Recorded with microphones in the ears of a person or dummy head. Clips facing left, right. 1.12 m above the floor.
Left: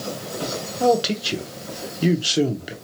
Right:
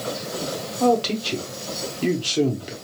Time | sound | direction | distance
0.8 | a man speaking | 10° left (ahead or behind) | 0.8 m